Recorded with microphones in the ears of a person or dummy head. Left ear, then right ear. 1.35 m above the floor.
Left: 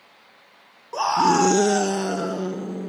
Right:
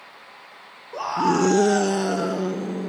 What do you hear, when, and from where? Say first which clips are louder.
0.9 s a scream: left 3 dB; 30° left (ahead or behind); by 2.9 s 5° right (ahead or behind)